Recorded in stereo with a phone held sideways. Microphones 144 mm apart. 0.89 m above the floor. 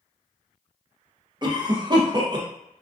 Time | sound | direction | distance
1.4 | a cough | 30° right (ahead or behind) | 0.6 m